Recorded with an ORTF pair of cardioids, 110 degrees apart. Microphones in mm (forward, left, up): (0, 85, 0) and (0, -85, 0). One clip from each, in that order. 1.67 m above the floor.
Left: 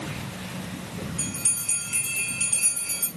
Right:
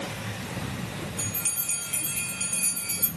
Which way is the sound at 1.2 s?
15° left.